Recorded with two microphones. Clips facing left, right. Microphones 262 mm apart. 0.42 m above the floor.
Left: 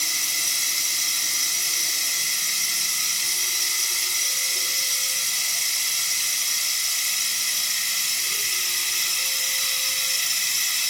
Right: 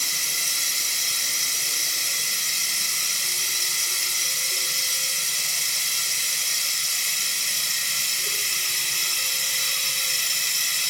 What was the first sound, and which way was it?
Running water, 55° right (ahead or behind).